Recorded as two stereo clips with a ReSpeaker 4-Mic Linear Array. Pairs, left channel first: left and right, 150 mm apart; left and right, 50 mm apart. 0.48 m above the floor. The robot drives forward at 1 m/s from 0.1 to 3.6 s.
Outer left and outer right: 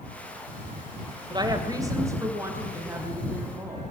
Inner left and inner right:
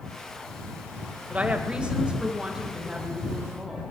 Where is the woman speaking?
30° right (ahead or behind), 1.8 m; by 3.8 s 15° right (ahead or behind), 4 m.